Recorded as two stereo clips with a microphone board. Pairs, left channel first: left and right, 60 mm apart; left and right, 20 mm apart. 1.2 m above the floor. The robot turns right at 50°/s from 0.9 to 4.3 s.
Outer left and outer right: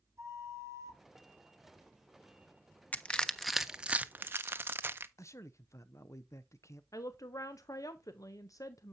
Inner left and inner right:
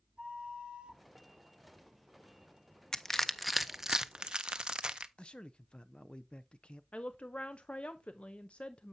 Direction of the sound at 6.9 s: 75° left (ahead or behind).